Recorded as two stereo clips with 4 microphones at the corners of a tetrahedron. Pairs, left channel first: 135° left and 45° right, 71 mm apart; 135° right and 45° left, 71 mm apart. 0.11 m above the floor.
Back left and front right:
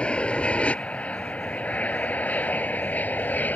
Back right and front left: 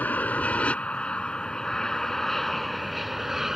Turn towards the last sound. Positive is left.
turn(degrees=120)